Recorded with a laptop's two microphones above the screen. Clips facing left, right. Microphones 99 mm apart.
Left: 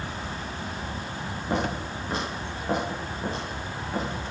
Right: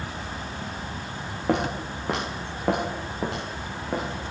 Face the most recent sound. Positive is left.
turn(degrees=-70)  # may be behind; listen again after turning